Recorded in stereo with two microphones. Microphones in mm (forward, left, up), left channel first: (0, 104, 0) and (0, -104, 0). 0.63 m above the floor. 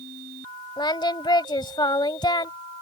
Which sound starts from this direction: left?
Singing, at 0.8 s.